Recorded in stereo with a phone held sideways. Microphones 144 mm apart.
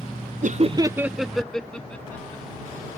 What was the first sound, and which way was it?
Laughter, 60° right (ahead or behind).